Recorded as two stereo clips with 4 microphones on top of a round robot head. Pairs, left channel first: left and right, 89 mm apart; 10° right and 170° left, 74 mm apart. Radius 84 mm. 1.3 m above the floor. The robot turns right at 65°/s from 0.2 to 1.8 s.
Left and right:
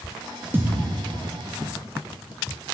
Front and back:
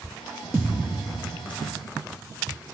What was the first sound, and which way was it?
A thud, 135° right.